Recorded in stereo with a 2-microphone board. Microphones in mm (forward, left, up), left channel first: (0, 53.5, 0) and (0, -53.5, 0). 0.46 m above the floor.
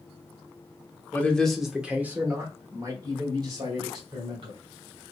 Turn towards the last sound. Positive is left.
turn(degrees=-50)  # may be behind; listen again after turning